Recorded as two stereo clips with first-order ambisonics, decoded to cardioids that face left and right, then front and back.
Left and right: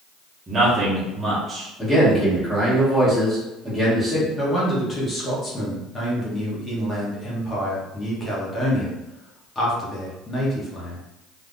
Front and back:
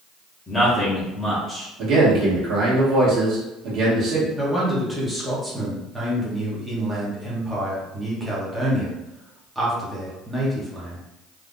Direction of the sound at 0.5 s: 55° right.